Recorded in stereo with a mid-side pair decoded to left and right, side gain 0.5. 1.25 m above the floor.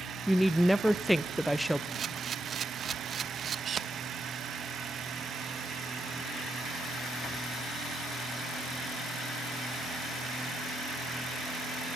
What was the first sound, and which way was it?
A woman speaking, straight ahead.